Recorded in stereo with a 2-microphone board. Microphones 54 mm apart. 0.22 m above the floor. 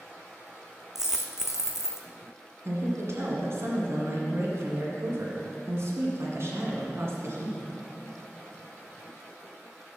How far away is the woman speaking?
About 1.9 m.